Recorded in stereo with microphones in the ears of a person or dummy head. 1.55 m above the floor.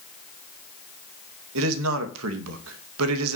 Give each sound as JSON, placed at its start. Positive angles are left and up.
{"t": 1.6, "sound": "a man speaking", "side_deg": -80, "distance_m": 2.5}